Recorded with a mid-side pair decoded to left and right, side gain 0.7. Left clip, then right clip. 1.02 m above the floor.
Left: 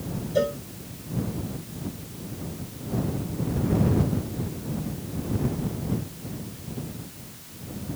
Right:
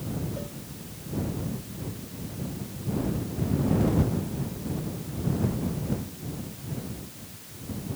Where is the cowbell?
55° left.